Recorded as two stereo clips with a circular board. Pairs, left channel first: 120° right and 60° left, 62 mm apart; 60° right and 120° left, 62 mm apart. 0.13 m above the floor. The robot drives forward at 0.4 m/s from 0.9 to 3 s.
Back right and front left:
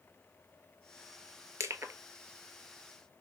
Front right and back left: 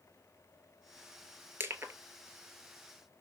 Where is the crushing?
75° left, 0.6 m; by 1.9 s 95° left, 0.5 m.